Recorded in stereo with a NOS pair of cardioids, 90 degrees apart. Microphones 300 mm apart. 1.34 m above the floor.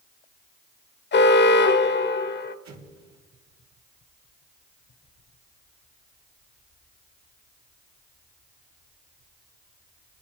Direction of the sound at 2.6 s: 65° right.